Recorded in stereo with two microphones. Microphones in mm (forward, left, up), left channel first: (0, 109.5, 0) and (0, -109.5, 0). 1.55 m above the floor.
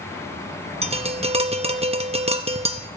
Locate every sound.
0.8 s tapping: 30° right (ahead or behind), 0.6 m